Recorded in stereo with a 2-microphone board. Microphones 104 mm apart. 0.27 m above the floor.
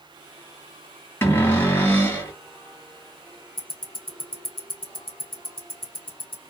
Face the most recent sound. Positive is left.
turn(degrees=55)  # may be behind; listen again after turning